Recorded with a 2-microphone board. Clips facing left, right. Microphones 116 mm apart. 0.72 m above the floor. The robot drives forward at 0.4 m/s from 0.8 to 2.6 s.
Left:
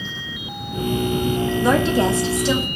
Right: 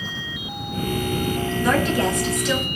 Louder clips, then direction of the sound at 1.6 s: Left 2 dB; 25° left (ahead or behind).